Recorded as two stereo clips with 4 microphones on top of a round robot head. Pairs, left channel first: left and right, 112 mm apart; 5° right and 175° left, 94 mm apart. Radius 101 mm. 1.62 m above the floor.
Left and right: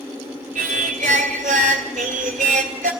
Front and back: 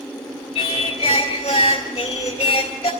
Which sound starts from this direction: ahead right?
Singing, at 0.6 s.